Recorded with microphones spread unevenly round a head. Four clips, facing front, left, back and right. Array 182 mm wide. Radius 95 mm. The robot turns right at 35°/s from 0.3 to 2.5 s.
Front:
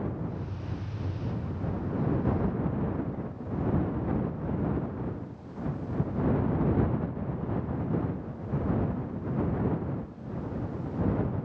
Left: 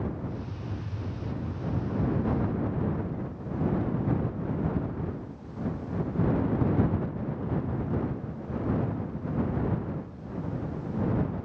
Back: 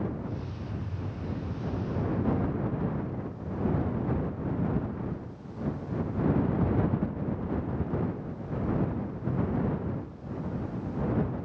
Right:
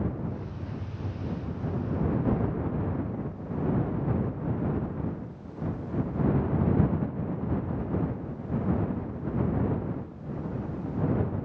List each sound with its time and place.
Only background noise.